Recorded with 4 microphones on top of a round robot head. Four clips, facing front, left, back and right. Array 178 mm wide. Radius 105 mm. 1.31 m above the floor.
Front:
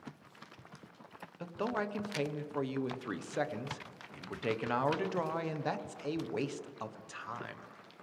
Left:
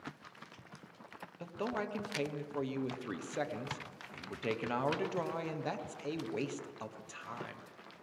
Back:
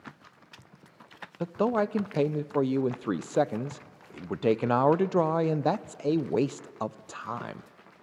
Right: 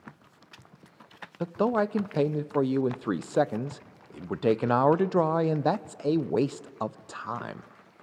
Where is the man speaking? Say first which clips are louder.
Right 13 dB, back 10 dB; 135° right, 0.6 m.